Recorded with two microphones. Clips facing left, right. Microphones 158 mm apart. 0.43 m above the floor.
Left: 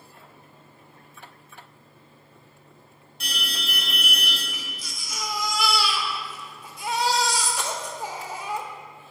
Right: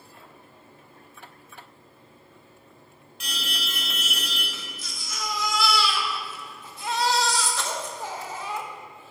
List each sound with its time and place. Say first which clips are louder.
3.2 s an alarm: left 1 dB; 35° left (ahead or behind), 3.5 m
4.5 s a baby crying: left 1 dB; 10° left (ahead or behind), 1.1 m